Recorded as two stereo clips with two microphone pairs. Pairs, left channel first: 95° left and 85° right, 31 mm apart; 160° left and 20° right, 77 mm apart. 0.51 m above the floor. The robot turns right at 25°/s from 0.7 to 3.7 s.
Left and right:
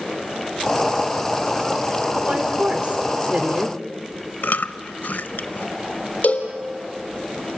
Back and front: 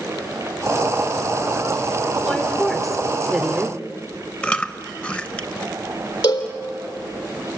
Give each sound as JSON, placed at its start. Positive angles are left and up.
{"t": 2.2, "sound": "a woman speaking", "azimuth_deg": -125, "distance_m": 1.6}
{"t": 4.4, "sound": "chewing", "azimuth_deg": 90, "distance_m": 0.8}
{"t": 6.2, "sound": "a cowbell", "azimuth_deg": 135, "distance_m": 3.0}